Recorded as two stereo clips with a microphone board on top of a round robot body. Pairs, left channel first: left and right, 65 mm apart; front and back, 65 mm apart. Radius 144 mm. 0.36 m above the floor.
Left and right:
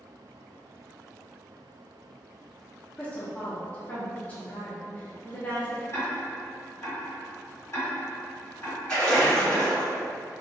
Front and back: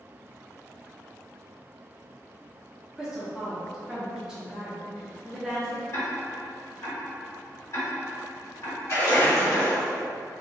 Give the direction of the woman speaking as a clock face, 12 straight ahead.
8 o'clock.